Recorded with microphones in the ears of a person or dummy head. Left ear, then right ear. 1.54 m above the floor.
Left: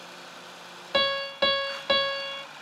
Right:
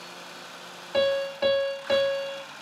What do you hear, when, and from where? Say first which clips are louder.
0.9 s a piano: even; 40° left (ahead or behind), 0.5 m